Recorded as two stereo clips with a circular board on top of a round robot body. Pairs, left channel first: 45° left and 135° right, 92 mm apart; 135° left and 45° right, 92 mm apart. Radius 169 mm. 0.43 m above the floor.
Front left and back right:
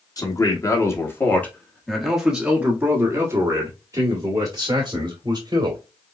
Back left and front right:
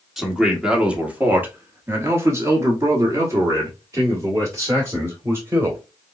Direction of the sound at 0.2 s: 40° left.